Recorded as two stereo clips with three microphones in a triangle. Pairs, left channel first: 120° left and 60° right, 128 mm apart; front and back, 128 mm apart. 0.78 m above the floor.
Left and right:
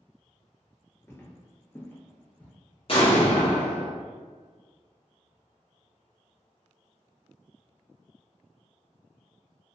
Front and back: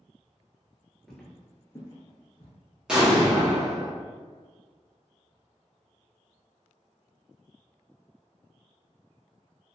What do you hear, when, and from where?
1.1 s footsteps: 80° left, 0.8 m; by 2.5 s 45° left, 1.2 m
2.9 s an explosion: 100° left, 1.1 m